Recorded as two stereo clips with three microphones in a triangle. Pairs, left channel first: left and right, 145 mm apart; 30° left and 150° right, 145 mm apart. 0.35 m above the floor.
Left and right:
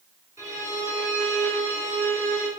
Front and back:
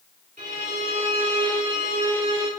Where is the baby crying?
I don't hear a baby crying.